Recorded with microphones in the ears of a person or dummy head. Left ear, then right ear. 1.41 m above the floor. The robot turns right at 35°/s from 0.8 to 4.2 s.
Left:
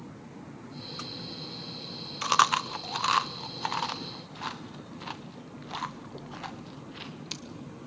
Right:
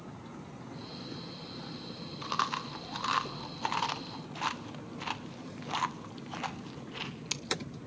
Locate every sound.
2.2 s chewing: 50° left (ahead or behind), 0.7 m; by 7.4 s 15° right (ahead or behind), 0.7 m